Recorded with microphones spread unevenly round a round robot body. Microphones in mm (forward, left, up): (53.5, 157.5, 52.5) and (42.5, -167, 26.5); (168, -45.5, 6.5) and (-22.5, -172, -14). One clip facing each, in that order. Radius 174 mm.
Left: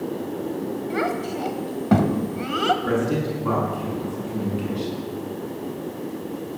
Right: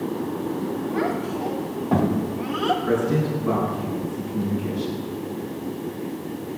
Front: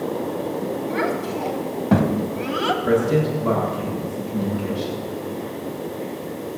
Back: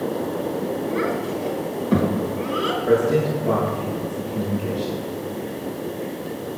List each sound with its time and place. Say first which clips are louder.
0.9 s a child speaking: even, even; 40° left, 2.0 m
2.8 s a man speaking: right 3 dB, back 1 dB; 20° left, 7.5 m